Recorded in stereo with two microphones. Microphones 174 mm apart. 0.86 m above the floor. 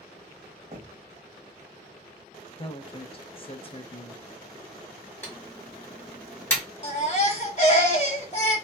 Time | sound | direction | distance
0.7 | knocking | 45° right (ahead or behind) | 1.1 m
2.5 | a woman speaking | 35° left (ahead or behind) | 0.5 m
5.2 | typing on a keyboard | 15° left (ahead or behind) | 1.3 m
6.8 | a baby crying | 40° left (ahead or behind) | 1.2 m